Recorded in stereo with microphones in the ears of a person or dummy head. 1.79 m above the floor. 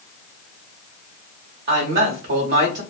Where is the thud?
I don't hear a thud.